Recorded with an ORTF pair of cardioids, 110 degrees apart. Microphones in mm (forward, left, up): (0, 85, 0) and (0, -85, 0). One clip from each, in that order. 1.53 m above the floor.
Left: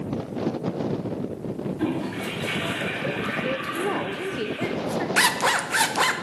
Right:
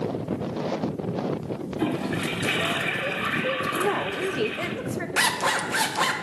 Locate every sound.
1.8 s a toilet flushing: 30° right, 1.4 m
3.7 s a woman speaking: 10° right, 0.7 m
5.2 s a zipper: 15° left, 0.7 m